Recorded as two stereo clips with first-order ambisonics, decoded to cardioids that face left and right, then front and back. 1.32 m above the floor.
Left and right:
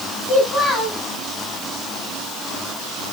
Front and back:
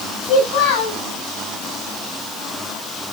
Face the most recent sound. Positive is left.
turn(degrees=5)